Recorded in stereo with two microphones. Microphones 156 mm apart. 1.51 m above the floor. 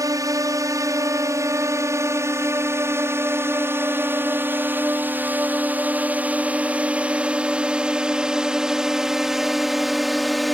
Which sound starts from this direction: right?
A drone, at 0.0 s.